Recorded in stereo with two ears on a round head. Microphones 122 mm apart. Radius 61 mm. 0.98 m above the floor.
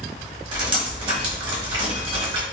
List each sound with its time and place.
0.5 s dripping: 40° right (ahead or behind), 1.2 m